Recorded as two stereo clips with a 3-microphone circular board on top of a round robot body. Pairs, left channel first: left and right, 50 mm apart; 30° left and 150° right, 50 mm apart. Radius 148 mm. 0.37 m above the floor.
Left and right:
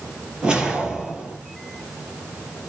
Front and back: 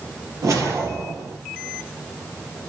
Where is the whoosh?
165° right, 5.5 m.